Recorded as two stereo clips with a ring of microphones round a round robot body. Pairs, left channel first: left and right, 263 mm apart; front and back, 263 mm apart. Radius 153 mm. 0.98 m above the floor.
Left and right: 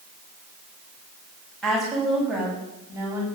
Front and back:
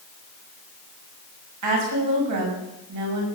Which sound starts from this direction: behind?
A woman speaking, at 1.6 s.